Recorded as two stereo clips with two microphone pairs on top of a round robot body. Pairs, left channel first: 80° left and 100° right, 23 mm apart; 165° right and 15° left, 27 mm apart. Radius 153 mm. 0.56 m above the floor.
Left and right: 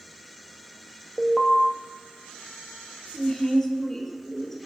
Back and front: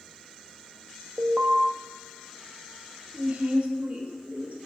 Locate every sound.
1.2 s an alarm: straight ahead, 1.1 m
3.1 s a woman speaking: 15° left, 1.5 m